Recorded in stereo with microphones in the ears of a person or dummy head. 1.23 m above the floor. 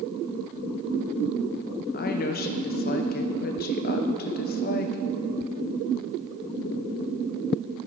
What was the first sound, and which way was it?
A woman speaking, 45° left (ahead or behind).